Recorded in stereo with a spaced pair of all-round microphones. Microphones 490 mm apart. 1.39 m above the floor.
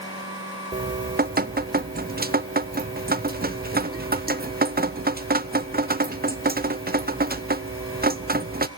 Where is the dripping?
20° right (ahead or behind), 0.5 m.